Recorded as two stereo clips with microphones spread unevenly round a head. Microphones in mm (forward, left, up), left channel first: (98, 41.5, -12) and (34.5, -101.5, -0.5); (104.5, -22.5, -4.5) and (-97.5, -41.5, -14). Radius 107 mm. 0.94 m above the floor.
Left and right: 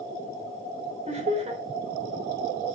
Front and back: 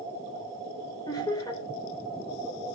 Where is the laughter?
65° right, 3.5 m.